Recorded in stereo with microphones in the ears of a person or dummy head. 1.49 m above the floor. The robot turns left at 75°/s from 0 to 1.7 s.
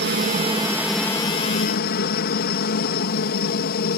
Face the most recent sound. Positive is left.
turn(degrees=125)